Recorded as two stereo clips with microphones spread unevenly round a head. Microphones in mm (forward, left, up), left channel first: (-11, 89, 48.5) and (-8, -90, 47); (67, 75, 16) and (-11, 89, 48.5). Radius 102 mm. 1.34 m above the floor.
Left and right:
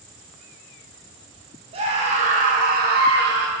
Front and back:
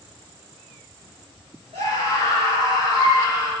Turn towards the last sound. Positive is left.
turn(degrees=-105)